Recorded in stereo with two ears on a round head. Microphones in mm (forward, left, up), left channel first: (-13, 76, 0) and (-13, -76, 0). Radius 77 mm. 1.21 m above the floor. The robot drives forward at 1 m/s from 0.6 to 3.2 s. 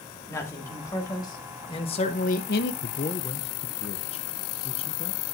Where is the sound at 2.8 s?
55° left (ahead or behind), 0.5 m; by 5.2 s 35° left (ahead or behind), 0.8 m.